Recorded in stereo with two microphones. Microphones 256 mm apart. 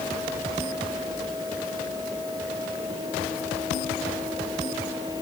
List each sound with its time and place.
Only background noise.